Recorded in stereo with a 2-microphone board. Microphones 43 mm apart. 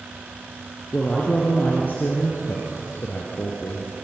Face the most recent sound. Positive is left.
turn(degrees=70)  # may be behind; listen again after turning